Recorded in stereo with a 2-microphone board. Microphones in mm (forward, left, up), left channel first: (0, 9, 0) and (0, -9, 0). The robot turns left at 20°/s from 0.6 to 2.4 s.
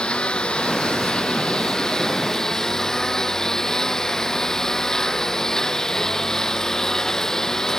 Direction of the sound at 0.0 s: 70° left.